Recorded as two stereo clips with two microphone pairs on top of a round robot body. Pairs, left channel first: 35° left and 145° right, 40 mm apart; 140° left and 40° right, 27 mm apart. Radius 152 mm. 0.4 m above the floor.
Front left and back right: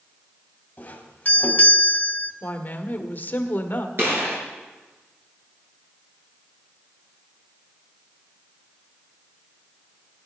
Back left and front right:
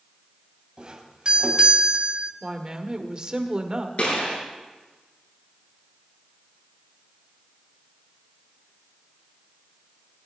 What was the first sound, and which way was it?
A doorbell, 10° left.